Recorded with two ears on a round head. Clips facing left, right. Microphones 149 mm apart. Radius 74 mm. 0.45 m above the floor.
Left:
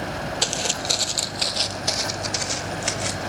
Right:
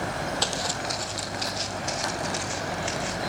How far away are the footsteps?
About 0.7 m.